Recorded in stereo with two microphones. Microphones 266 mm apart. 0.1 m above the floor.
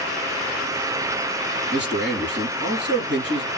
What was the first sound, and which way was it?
A man speaking, 40° right (ahead or behind).